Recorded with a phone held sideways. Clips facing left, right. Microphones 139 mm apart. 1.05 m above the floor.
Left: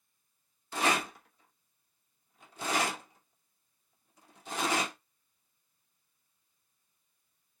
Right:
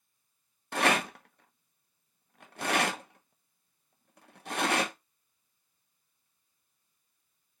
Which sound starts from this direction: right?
A rattle, at 0.7 s.